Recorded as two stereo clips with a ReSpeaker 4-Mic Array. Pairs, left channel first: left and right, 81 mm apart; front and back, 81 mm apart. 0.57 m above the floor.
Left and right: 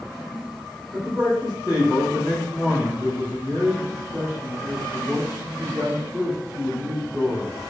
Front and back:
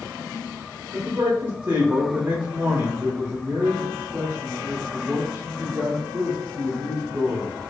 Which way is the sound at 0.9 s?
155° right.